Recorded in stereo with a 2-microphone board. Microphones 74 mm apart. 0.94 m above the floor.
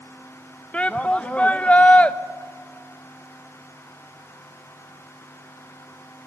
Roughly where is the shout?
Centre.